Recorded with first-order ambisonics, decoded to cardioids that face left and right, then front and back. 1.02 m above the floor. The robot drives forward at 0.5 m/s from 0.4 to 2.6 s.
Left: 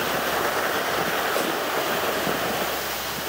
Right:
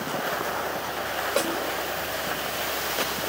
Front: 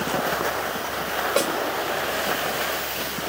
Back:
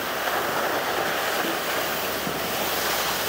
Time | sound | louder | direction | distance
1.4 | a snare drum | left 1 dB, front 3 dB | 15° right | 5.5 m